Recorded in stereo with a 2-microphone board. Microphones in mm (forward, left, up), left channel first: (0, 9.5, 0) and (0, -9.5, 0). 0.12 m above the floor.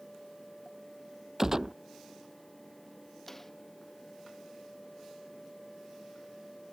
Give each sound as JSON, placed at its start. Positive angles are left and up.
{"t": 1.4, "sound": "a gunshot", "side_deg": -25}
{"t": 3.3, "sound": "a snare drum", "side_deg": 15}